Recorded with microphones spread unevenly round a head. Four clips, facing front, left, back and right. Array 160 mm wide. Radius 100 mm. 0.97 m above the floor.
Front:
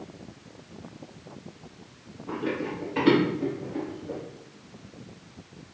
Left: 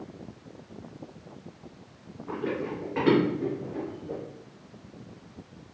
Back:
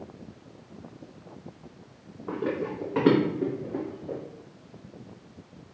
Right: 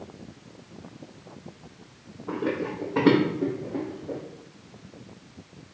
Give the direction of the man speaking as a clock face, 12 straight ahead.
I don't hear a man speaking.